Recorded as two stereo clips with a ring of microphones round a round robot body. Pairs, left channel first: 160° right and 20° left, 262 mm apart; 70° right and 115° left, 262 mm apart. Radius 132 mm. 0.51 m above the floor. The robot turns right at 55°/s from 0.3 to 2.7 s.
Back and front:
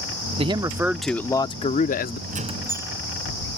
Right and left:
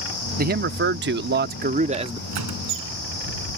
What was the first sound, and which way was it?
A man speaking, 80° left.